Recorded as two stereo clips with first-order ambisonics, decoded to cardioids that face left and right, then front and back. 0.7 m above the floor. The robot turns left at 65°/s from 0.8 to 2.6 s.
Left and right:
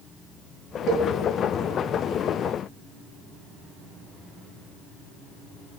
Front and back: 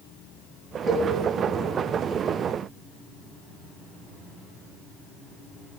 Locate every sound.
0.9 s a cowbell: 100° right, 0.5 m; by 1.1 s 115° right, 0.5 m